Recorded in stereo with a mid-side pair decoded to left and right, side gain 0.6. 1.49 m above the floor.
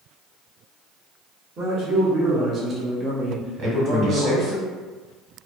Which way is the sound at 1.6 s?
50° right.